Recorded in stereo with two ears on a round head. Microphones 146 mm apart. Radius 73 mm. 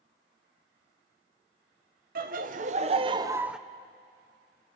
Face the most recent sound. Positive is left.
turn(degrees=-5)  # may be behind; listen again after turning